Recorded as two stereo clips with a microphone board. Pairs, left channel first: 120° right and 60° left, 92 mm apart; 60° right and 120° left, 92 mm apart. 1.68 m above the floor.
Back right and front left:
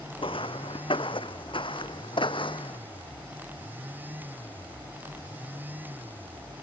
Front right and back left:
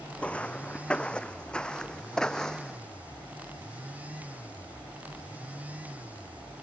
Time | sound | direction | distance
0.2 | footsteps | 135° right | ?